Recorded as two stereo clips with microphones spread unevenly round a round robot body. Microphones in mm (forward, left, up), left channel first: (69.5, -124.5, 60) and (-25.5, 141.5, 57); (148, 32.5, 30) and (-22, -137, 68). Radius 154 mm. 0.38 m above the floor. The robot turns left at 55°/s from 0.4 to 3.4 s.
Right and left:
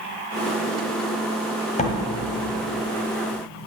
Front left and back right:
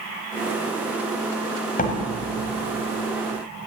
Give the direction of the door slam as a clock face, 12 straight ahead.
12 o'clock.